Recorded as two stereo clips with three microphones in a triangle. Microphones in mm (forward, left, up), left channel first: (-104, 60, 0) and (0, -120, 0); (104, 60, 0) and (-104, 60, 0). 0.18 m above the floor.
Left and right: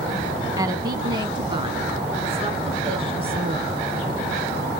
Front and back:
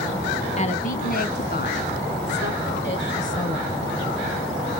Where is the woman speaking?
5° right, 1.1 m; by 3.7 s straight ahead, 2.5 m.